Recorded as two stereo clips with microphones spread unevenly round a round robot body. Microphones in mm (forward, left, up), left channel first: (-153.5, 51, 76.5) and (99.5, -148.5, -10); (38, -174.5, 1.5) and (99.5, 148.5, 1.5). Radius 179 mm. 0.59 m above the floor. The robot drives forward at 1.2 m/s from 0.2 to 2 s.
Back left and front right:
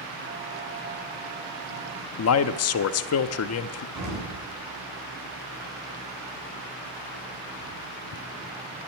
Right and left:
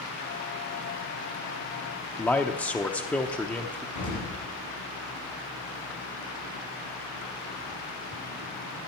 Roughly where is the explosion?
Right.